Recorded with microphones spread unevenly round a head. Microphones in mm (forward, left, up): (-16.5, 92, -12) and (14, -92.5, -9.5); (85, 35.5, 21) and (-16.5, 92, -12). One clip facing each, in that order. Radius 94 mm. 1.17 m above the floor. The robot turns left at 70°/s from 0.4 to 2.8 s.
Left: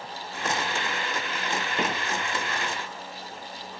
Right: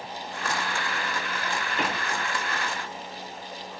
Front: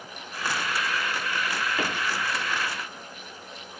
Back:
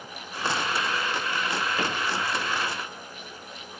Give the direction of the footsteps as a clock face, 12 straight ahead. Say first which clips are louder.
Left 1 dB, back 1 dB; 10 o'clock.